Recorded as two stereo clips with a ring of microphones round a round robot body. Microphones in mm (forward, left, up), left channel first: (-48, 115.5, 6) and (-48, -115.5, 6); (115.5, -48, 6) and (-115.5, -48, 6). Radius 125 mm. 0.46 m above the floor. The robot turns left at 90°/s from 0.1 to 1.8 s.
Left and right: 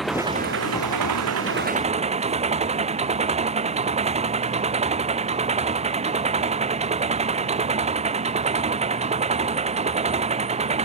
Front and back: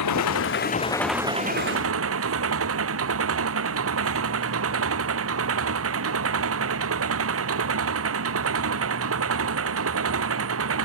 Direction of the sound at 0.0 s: Straight ahead.